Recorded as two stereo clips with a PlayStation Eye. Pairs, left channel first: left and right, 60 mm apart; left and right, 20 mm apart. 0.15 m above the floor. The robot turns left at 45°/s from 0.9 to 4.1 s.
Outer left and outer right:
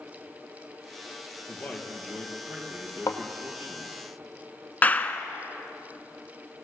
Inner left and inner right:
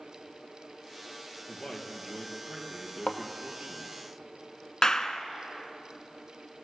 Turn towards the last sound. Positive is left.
turn(degrees=25)  # may be behind; listen again after turning